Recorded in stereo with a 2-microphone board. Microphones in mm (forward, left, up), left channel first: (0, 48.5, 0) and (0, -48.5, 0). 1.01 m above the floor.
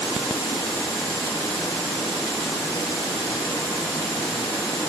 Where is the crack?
I don't hear a crack.